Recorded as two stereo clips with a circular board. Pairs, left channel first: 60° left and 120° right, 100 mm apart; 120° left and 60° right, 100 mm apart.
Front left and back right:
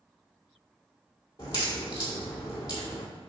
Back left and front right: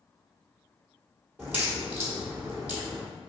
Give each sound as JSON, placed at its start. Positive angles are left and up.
{"t": 1.4, "sound": "a crack", "azimuth_deg": 15, "distance_m": 1.6}